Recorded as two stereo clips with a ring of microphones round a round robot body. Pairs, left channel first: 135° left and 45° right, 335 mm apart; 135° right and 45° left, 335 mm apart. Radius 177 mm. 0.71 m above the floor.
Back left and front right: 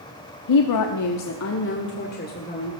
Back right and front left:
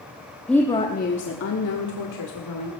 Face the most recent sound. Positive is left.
turn(degrees=-155)